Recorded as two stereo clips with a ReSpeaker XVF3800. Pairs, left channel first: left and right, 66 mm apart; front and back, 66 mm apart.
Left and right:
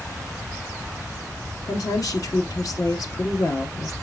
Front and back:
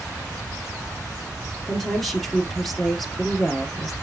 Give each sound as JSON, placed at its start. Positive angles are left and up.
{"t": 1.7, "sound": "a woman speaking", "azimuth_deg": 90, "distance_m": 2.0}